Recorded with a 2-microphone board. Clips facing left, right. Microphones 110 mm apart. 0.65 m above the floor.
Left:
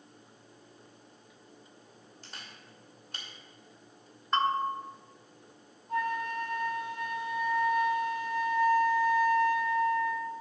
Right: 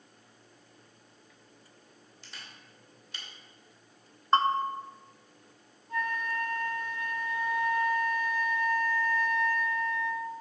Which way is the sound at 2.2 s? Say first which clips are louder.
Left 1 dB; 45° left (ahead or behind).